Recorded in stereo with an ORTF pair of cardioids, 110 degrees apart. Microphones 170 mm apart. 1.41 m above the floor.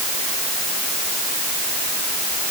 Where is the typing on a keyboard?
I don't hear typing on a keyboard.